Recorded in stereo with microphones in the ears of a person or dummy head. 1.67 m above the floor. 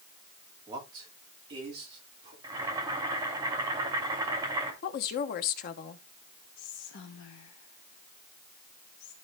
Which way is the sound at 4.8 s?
50° left (ahead or behind).